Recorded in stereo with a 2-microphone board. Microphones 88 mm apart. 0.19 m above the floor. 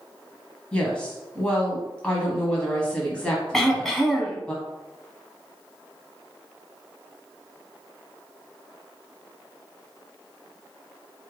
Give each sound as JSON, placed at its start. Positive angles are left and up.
{"t": 0.7, "sound": "a woman speaking", "side_deg": 10, "distance_m": 1.0}
{"t": 3.5, "sound": "throat clearing", "side_deg": 5, "distance_m": 0.8}